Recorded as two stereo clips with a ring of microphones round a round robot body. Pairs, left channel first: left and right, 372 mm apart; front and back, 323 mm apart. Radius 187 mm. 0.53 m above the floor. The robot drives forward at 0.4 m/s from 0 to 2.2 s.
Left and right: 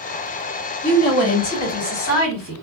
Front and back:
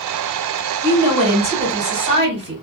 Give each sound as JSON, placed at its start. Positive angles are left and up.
{"t": 0.8, "sound": "a woman speaking", "azimuth_deg": 120, "distance_m": 1.8}